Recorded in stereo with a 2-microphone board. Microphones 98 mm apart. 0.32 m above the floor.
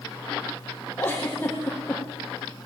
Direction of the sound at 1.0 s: 15° left (ahead or behind).